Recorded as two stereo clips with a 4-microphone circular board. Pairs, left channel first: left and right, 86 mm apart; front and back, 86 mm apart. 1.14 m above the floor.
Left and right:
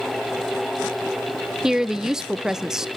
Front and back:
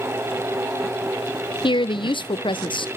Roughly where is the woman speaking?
Ahead.